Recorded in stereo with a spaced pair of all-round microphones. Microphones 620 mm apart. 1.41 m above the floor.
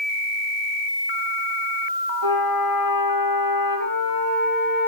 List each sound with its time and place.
2.2 s a flute: 55° right (ahead or behind), 6.5 m